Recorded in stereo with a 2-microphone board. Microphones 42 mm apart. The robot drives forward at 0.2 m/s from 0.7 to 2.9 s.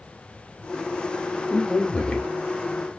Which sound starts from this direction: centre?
A man speaking, at 1.5 s.